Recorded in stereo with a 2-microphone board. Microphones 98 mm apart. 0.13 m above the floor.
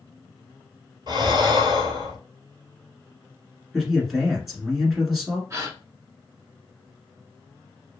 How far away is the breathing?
About 1.1 m.